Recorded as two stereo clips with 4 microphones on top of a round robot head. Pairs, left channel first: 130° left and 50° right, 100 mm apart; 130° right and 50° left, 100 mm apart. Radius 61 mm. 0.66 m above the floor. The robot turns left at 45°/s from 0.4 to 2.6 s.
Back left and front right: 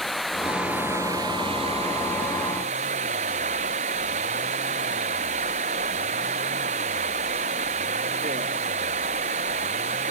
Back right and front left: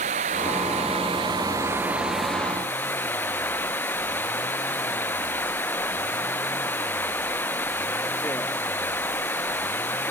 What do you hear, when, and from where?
0.0 s running water: 40° left; by 10.1 s 60° right